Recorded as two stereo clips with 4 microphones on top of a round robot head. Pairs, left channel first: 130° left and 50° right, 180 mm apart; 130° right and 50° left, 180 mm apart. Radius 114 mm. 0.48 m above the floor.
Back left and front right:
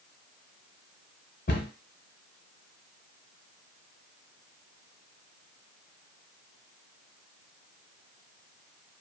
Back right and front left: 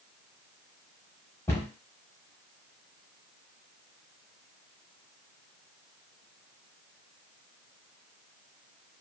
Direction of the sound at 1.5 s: 155° left.